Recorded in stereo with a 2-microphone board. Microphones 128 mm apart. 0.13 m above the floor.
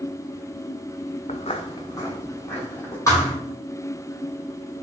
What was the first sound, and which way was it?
Footsteps, 65° left (ahead or behind).